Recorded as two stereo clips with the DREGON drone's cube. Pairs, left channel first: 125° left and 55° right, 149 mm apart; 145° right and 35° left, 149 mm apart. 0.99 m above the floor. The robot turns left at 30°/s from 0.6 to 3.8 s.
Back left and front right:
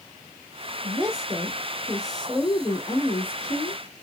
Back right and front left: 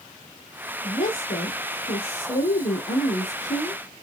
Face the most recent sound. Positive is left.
turn(degrees=160)